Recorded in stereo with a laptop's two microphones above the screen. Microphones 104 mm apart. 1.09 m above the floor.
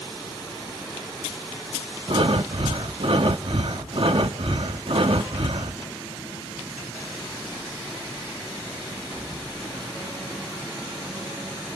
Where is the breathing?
65° right (ahead or behind), 0.8 m.